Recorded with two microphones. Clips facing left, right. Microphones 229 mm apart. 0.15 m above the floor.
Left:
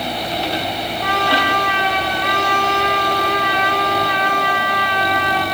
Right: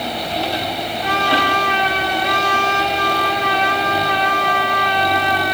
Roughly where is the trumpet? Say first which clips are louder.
Right 1 dB; left.